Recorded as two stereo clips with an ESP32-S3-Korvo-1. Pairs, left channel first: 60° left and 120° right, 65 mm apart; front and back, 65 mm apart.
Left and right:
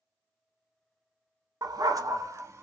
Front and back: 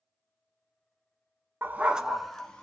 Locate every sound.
1.6 s a dog barking: 125° right, 0.7 m; by 2.6 s 75° right, 1.1 m